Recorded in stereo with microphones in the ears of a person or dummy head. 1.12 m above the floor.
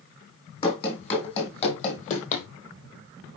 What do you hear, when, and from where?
0.6 s running footsteps: 30° left (ahead or behind), 3.5 m; by 2.5 s 45° left (ahead or behind), 2.5 m